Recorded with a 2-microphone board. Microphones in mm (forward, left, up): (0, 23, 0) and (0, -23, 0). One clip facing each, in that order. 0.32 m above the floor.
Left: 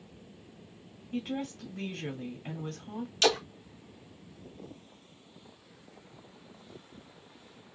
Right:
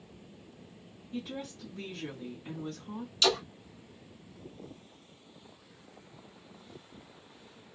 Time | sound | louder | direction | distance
1.1 | a woman speaking | left 4 dB | 55° left (ahead or behind) | 1.8 m
3.2 | a splash | left 2 dB | 50° left (ahead or behind) | 1.5 m